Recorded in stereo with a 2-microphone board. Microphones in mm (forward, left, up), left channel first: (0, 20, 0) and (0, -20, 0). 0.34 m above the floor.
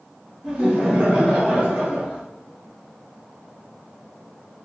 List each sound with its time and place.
0.4 s laughter: 20° right (ahead or behind), 1.4 m